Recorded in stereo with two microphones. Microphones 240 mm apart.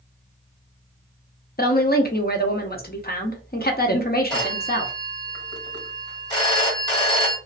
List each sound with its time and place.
1.6 s a woman speaking: 40° left (ahead or behind), 0.6 m
4.3 s a phone ringing: 15° left (ahead or behind), 1.5 m